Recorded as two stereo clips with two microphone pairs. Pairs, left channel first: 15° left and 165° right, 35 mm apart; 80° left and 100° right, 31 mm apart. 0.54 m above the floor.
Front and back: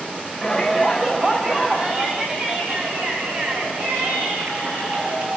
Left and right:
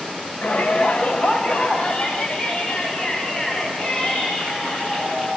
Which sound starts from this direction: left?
A shout, at 0.4 s.